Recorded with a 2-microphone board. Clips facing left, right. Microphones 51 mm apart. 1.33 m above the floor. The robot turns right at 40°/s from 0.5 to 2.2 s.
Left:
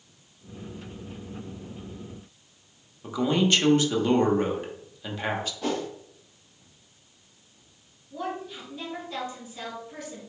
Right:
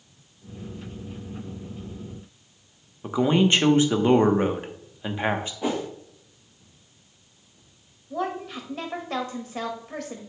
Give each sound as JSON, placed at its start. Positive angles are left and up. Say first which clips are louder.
{"t": 3.0, "sound": "a man speaking", "louder": "right 3 dB", "side_deg": -25, "distance_m": 1.0}
{"t": 5.6, "sound": "a whoosh", "louder": "right 2 dB", "side_deg": -15, "distance_m": 0.9}
{"t": 8.1, "sound": "a woman speaking", "louder": "right 4 dB", "side_deg": -85, "distance_m": 2.0}